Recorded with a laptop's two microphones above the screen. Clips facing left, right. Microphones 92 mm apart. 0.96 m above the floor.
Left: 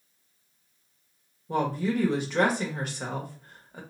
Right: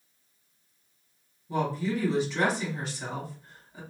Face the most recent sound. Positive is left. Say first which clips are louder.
# left 2 dB
turn(degrees=55)  # may be behind; listen again after turning